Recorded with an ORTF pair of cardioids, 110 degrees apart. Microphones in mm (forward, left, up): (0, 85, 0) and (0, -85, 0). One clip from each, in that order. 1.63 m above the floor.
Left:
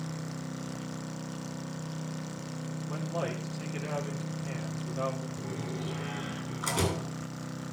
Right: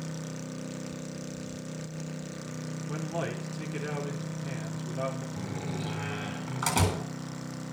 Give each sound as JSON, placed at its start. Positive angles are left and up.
{"t": 2.9, "sound": "a man speaking", "azimuth_deg": -25, "distance_m": 5.0}
{"t": 5.4, "sound": "a door slam", "azimuth_deg": -65, "distance_m": 8.0}